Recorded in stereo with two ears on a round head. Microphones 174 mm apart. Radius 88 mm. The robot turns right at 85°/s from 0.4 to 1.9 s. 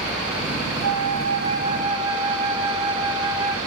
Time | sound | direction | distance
0.8 | a flute | 110° right | 9.5 m